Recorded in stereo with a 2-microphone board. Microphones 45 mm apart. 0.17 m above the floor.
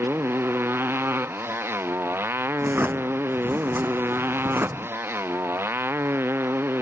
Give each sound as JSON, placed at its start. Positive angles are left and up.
{"t": 0.0, "sound": "a motorcycle", "side_deg": -60}
{"t": 2.6, "sound": "a drawer", "side_deg": -50}